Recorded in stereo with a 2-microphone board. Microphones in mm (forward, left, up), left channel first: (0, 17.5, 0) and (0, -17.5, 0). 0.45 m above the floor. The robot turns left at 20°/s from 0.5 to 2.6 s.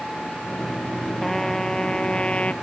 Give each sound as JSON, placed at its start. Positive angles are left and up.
{"t": 1.2, "sound": "a trumpet", "side_deg": 5}